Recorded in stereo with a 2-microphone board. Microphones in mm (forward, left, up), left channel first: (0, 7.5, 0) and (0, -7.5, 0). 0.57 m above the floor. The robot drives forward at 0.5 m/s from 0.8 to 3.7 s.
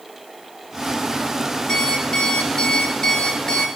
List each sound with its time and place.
1.7 s an alarm clock: 60° left (ahead or behind), 3.5 m; by 3.7 s 50° left (ahead or behind), 4 m